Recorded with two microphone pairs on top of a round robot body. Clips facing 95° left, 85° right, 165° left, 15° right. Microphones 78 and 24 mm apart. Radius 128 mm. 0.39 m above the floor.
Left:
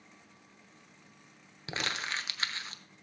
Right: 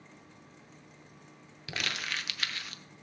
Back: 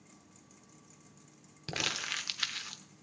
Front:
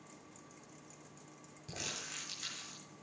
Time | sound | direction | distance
1.7 | crumpling | 150° left | 1.1 m